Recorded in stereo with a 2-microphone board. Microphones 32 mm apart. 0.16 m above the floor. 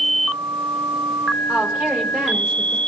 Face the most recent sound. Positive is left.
turn(degrees=-65)  # may be behind; listen again after turning